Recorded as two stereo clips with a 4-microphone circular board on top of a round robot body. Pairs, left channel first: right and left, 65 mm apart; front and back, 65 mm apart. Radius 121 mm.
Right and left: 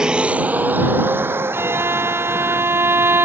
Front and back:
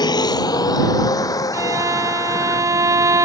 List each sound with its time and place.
0.0 s a vehicle: 10° left; by 3.2 s 40° left
1.5 s a violin: 145° left